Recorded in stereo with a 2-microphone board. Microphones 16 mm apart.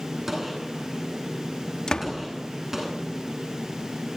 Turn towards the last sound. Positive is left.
turn(degrees=65)  # may be behind; listen again after turning